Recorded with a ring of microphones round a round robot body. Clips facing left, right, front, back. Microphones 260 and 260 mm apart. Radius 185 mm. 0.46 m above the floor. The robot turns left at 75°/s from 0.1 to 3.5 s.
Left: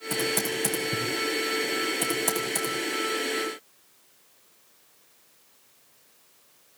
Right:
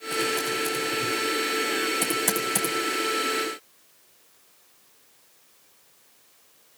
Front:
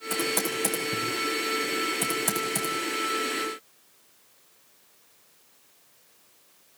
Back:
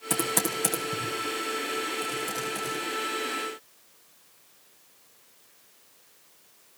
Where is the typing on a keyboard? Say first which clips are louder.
Right 1 dB, even; 145° left, 7 m; by 2.7 s 50° right, 7 m.